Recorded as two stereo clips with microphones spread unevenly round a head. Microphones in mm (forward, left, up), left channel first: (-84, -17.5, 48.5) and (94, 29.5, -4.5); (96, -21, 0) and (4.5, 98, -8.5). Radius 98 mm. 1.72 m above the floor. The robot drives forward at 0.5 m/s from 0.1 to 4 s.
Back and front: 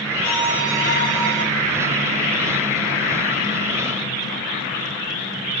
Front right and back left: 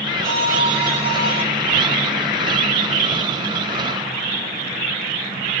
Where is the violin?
160° left, 4.5 m; by 1.4 s 165° left, 5 m.